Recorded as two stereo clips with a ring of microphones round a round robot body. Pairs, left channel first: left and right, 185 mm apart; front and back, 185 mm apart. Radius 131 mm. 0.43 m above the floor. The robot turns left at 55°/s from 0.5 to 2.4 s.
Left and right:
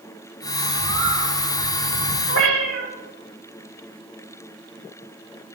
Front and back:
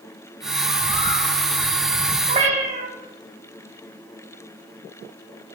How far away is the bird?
About 4 m.